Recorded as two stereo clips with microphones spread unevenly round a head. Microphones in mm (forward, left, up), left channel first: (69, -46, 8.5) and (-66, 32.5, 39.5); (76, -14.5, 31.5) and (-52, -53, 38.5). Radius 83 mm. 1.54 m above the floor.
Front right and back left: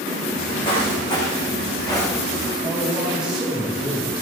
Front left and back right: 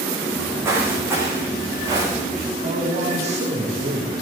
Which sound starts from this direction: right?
Footsteps, at 0.3 s.